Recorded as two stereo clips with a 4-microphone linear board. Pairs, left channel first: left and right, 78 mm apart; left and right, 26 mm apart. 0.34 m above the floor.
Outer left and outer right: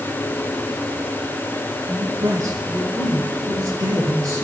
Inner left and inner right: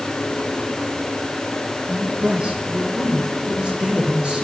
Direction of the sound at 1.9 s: 45° right (ahead or behind).